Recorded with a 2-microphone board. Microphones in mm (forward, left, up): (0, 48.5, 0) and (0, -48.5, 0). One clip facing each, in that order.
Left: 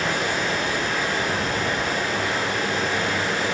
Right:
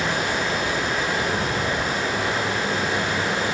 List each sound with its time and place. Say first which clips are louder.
0.0 s running water: even; 20° right (ahead or behind), 2.5 m